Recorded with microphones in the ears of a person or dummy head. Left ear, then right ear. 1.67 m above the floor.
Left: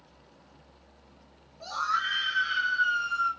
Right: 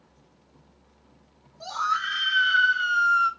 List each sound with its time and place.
1.6 s a scream: 65° right (ahead or behind), 2.5 m; by 3.3 s 80° right, 1.6 m